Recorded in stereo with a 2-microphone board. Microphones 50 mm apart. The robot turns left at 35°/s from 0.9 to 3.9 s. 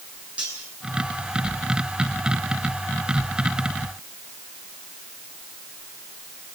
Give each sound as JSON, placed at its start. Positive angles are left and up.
{"t": 0.4, "sound": "cutlery clinking", "side_deg": -25, "distance_m": 9.0}